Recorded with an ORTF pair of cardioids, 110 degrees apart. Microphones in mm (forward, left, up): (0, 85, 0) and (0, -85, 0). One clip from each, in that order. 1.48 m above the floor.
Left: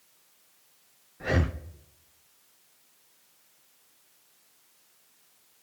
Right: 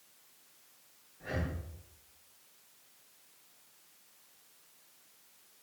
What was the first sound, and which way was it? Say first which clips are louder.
Breathing: left 10 dB; 55° left.